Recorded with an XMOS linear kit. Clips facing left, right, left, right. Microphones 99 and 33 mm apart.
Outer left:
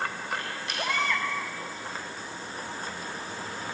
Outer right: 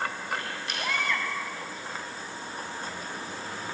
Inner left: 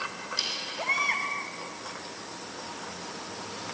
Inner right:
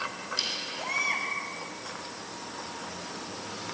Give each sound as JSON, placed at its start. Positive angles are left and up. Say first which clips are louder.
{"t": 0.8, "sound": "a baby crying", "louder": "outer left 2 dB, inner left 3 dB", "side_deg": 30, "distance_m": 1.6}